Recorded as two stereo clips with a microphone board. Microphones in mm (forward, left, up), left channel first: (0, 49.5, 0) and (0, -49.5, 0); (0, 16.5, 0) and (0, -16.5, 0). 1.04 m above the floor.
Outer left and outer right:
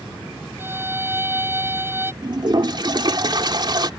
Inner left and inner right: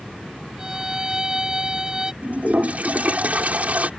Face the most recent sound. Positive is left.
turn(degrees=-50)  # may be behind; listen again after turning